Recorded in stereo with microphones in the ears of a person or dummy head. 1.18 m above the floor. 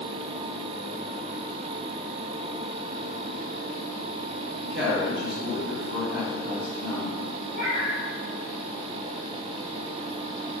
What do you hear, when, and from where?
4.6 s a woman speaking: 65° right (ahead or behind), 1.4 m
7.5 s a cat meowing: 40° right (ahead or behind), 1.5 m